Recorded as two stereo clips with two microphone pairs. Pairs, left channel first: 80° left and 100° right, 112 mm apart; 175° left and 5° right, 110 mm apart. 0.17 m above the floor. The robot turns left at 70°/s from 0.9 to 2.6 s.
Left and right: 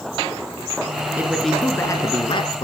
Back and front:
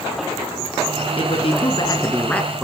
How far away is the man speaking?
About 1.9 m.